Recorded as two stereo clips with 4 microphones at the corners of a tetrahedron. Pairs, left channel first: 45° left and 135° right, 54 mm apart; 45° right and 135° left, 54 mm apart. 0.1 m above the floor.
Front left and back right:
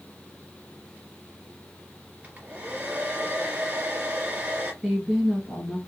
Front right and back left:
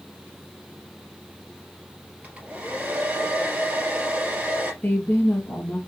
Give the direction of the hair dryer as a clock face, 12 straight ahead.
6 o'clock.